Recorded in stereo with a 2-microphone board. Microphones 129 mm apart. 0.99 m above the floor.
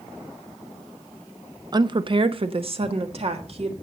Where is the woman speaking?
30° right (ahead or behind), 0.6 m; by 3.7 s 50° right (ahead or behind), 2 m.